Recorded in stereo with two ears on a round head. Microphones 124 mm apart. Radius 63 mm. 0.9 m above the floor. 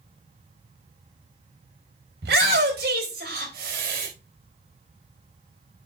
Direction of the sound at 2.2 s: 85° right.